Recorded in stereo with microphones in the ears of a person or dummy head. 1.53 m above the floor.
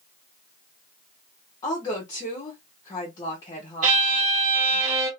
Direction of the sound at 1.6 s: 25° left (ahead or behind).